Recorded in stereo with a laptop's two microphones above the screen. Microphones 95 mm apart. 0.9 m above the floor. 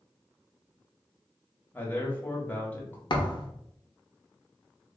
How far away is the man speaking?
About 1.2 m.